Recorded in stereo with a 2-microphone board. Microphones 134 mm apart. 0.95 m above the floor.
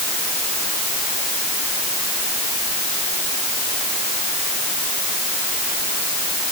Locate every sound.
Only background noise.